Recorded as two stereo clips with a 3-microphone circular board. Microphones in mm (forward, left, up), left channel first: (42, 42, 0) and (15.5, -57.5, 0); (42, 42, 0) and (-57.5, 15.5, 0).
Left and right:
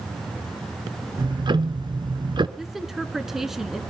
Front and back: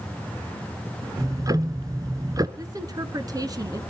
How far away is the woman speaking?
About 1.3 m.